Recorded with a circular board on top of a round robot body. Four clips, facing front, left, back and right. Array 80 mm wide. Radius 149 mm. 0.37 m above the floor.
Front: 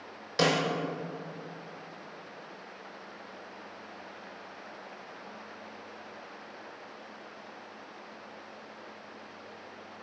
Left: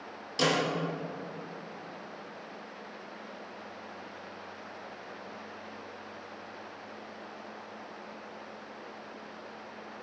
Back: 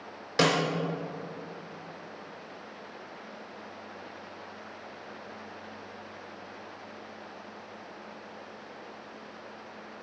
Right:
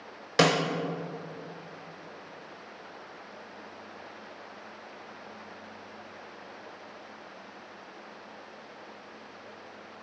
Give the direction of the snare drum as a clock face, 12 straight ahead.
3 o'clock.